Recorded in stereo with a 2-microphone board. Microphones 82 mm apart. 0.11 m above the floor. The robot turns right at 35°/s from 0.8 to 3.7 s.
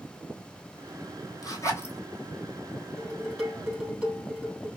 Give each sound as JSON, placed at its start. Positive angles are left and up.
{"t": 1.4, "sound": "a zipper", "side_deg": 45, "distance_m": 0.9}
{"t": 3.0, "sound": "dishes clattering", "side_deg": 5, "distance_m": 2.5}